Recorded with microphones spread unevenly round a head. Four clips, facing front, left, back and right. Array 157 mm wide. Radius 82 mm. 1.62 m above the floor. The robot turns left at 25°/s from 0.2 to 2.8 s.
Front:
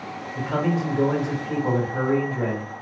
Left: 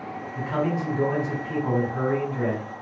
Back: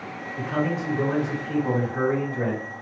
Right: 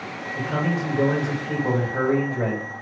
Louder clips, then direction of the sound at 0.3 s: Even, front 2 dB; 25° right.